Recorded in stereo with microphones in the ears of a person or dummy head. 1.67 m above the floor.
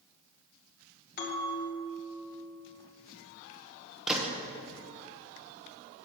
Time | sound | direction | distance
1.2 | a bell | 50° left (ahead or behind) | 1.9 m
4.1 | a gunshot | 5° right (ahead or behind) | 1.0 m